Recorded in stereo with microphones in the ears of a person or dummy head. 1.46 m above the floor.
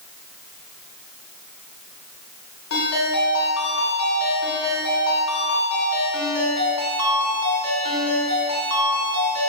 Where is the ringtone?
70° left (ahead or behind), 2.5 m.